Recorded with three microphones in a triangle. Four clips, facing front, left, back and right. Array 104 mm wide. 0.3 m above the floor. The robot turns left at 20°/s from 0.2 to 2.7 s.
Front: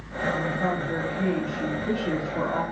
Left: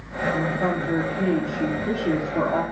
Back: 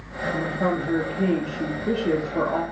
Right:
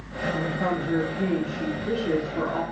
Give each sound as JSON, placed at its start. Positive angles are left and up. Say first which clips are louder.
{"t": 0.3, "sound": "a woman speaking", "louder": "left 2 dB, back 4 dB", "azimuth_deg": -165, "distance_m": 6.0}